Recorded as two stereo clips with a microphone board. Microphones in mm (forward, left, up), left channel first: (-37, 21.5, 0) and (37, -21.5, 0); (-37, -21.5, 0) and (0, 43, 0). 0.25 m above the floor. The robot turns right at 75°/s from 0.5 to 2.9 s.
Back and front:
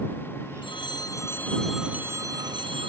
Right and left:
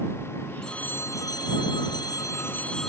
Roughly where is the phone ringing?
Behind.